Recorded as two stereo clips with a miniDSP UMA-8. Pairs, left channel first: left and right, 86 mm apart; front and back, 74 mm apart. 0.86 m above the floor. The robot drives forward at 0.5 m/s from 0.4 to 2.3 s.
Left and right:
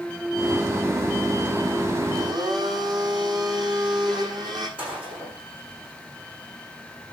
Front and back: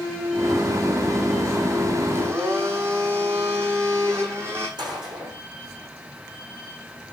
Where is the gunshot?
165° right, 8 m.